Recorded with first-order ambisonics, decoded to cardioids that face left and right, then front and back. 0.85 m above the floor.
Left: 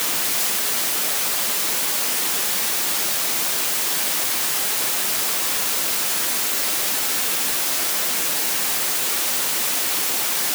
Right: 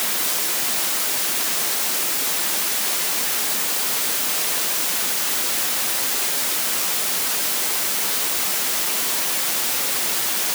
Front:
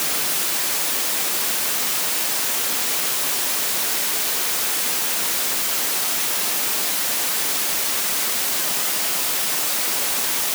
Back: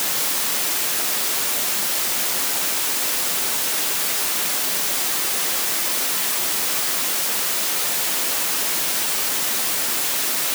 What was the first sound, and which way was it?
Only background noise.